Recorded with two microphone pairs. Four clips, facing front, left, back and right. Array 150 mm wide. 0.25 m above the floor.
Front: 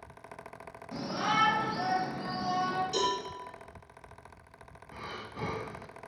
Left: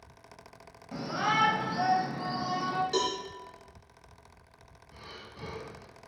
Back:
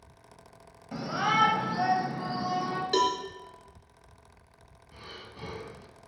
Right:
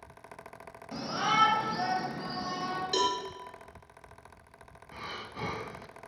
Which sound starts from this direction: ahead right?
Breathing, at 4.9 s.